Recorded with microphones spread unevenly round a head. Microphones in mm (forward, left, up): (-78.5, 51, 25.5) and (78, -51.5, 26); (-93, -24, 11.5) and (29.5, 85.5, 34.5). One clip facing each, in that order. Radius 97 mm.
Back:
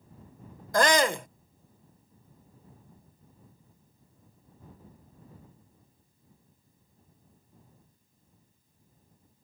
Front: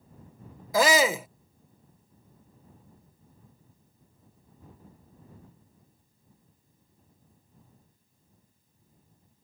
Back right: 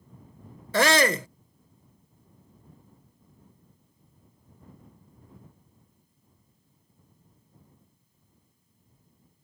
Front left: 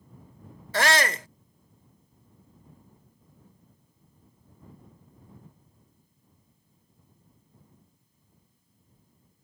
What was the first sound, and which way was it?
A shout, 120° right.